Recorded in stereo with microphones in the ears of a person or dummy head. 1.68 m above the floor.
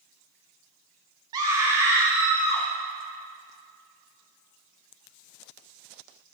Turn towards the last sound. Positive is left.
turn(degrees=-15)  # may be behind; listen again after turning